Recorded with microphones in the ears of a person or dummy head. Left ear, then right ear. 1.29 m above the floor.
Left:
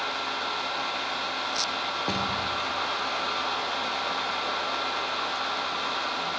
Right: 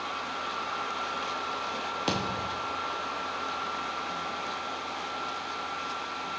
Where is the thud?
50° right (ahead or behind), 2 m.